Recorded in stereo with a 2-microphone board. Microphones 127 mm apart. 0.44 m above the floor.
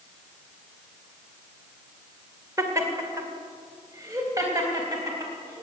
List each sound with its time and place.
2.6 s laughter: 25° right (ahead or behind), 1.9 m